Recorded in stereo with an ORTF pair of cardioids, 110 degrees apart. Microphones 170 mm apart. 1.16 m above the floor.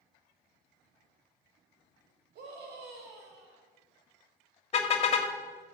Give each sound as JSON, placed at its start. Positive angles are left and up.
{"t": 2.4, "sound": "a scream", "azimuth_deg": -70, "distance_m": 4.5}
{"t": 4.7, "sound": "a car horn", "azimuth_deg": 40, "distance_m": 2.0}